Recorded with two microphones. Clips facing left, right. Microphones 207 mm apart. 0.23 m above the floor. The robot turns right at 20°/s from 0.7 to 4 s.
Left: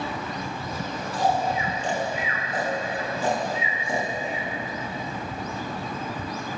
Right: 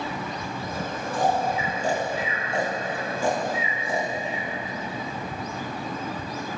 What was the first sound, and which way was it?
Snoring, 55° right (ahead or behind).